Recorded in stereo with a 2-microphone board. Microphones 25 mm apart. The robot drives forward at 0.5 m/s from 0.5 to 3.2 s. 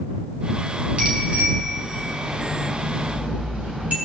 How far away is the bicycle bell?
About 4 m.